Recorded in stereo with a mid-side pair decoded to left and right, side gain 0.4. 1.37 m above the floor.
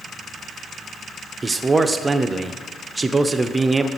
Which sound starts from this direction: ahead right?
A man speaking, at 1.4 s.